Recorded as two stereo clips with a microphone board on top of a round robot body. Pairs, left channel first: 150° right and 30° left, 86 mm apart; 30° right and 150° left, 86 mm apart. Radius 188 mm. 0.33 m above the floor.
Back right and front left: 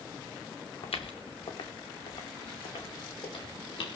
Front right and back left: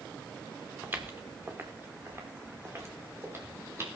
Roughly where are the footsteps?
Behind right.